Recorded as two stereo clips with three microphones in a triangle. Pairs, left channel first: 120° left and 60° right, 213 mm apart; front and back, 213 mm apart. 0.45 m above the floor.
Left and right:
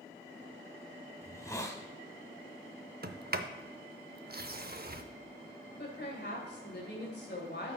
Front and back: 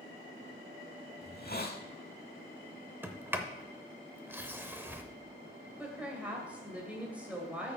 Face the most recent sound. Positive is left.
turn(degrees=95)